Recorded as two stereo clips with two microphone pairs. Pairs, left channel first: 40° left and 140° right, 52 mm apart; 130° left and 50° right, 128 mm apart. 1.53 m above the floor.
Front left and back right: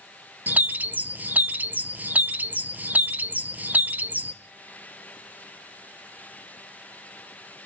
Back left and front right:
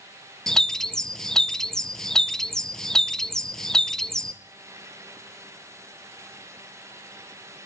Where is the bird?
145° right, 0.6 m.